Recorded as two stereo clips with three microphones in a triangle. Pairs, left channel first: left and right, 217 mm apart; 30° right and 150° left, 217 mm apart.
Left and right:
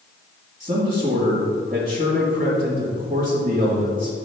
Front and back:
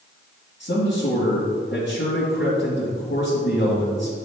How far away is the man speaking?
About 1.8 m.